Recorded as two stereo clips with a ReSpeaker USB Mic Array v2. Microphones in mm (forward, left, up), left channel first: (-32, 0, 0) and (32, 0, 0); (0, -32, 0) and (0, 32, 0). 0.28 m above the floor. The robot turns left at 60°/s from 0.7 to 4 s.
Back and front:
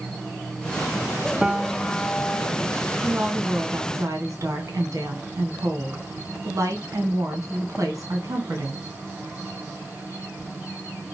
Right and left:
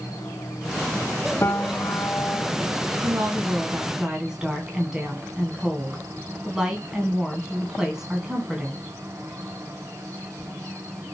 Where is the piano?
75° right, 0.5 m; by 2.5 s 145° right, 0.5 m.